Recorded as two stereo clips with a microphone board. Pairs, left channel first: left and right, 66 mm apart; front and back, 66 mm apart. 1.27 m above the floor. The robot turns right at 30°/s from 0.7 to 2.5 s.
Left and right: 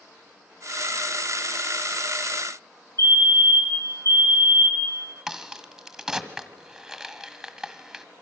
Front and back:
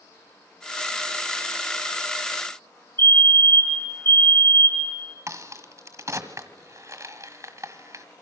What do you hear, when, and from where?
3.0 s a fire alarm: 50° left, 2.5 m
5.3 s a crack: straight behind, 1.6 m